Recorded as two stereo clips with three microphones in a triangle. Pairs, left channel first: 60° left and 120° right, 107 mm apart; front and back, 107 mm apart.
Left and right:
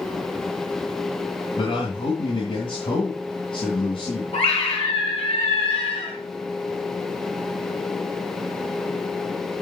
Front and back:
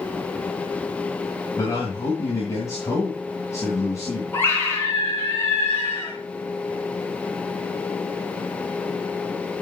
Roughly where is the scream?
Ahead left.